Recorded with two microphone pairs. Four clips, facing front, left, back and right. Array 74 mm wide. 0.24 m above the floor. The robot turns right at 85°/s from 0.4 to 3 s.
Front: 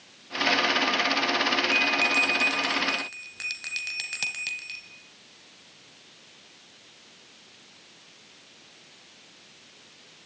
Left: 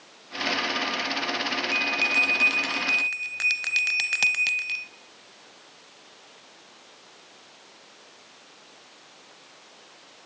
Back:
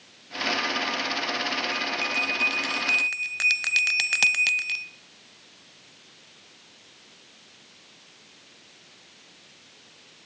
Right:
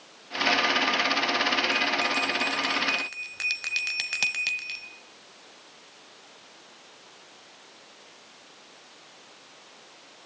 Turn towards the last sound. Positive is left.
turn(degrees=155)